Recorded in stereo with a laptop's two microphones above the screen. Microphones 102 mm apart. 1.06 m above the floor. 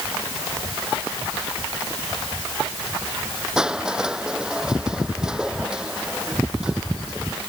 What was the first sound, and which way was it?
Crushing, 5° right (ahead or behind).